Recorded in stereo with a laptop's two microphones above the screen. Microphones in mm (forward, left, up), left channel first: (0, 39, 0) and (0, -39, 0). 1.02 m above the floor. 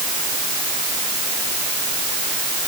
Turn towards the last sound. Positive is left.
No sound to turn to.